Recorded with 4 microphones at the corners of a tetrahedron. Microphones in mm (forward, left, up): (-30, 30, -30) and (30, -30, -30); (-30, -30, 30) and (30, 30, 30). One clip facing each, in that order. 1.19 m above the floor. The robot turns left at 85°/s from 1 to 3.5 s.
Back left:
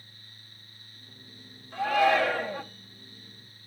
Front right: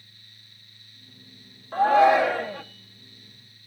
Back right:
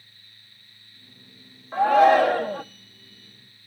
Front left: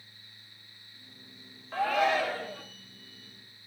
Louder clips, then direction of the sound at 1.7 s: Front right 6 dB, back right 11 dB; 65° right.